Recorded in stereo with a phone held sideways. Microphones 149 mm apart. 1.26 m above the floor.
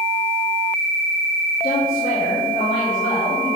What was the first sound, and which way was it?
A woman speaking, 70° left (ahead or behind).